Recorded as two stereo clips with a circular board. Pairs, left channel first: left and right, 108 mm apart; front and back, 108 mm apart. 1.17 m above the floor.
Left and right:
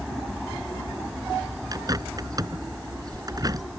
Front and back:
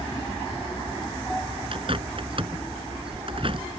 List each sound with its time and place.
1.7 s a bird: 145° right